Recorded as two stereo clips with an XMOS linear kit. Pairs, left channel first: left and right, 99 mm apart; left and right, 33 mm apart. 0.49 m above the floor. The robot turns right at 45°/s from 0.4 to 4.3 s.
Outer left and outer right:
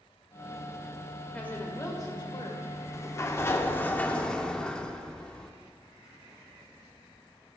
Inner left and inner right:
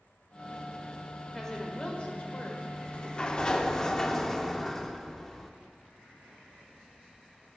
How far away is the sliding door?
About 0.5 m.